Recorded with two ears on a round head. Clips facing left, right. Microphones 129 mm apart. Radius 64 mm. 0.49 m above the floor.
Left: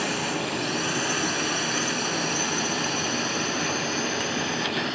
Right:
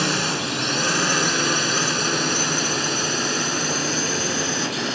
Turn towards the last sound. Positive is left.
turn(degrees=-55)  # may be behind; listen again after turning